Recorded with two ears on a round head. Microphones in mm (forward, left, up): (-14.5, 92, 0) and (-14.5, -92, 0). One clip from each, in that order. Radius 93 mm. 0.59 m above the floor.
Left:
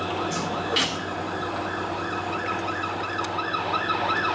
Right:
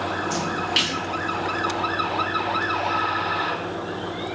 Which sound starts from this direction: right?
A splash, at 0.3 s.